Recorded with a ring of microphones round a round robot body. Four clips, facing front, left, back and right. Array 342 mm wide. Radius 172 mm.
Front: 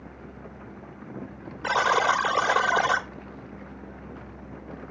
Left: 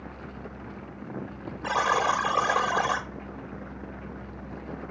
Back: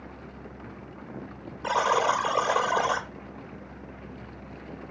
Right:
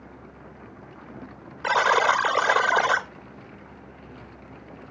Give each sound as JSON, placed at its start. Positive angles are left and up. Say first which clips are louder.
{"t": 1.6, "sound": "a buzzer", "louder": "right 4 dB, front 1 dB", "azimuth_deg": -70, "distance_m": 0.8}